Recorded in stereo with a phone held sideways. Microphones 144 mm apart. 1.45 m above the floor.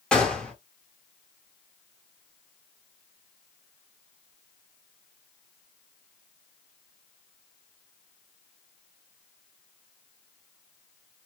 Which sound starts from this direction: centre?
A gunshot, at 0.1 s.